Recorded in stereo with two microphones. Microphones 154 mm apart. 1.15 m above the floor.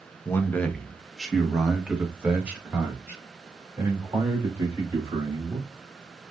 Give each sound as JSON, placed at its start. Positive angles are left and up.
{"t": 0.2, "sound": "a man speaking", "side_deg": 15, "distance_m": 0.7}